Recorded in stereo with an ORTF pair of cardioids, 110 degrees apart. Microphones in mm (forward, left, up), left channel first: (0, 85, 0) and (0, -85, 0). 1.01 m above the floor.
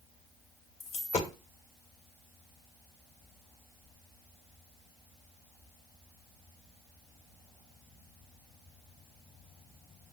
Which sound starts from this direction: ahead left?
A dropped coin, at 0.8 s.